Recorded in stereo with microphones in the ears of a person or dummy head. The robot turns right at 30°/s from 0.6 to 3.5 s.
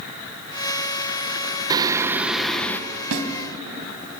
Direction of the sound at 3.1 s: 70° right (ahead or behind).